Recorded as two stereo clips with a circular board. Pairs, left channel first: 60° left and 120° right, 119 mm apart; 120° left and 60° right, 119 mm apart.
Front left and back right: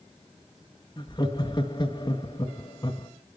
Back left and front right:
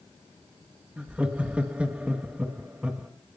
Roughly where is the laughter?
Ahead.